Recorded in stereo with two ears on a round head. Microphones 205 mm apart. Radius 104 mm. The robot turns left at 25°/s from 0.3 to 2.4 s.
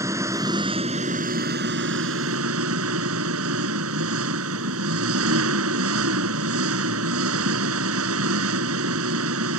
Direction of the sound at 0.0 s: 15° right.